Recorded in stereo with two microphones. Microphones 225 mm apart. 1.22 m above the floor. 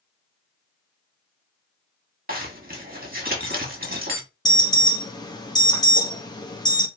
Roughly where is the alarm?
Centre.